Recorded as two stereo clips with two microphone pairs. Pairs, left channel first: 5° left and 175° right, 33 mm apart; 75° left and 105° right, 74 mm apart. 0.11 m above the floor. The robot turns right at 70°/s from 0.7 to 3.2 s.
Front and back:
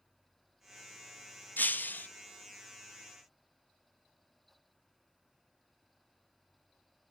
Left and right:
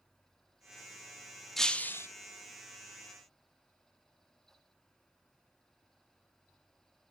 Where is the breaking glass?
10° right, 0.6 m; by 2.1 s 25° left, 0.6 m.